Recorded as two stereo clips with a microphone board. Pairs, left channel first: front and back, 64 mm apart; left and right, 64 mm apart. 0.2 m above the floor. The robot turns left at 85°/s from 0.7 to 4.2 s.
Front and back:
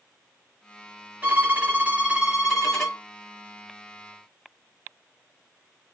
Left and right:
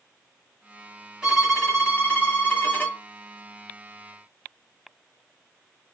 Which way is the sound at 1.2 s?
150° right.